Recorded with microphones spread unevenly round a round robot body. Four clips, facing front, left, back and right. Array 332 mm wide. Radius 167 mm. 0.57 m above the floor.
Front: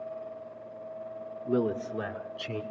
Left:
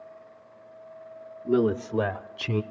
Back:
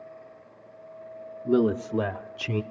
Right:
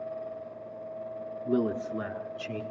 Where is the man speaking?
175° left, 0.9 m; by 2.6 s 120° left, 1.5 m.